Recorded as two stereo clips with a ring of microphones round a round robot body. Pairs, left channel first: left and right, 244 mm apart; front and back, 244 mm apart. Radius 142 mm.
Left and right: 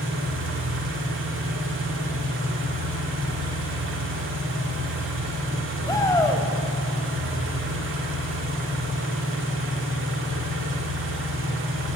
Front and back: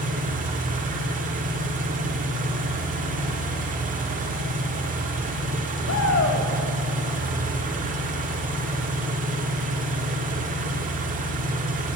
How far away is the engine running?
About 1.6 m.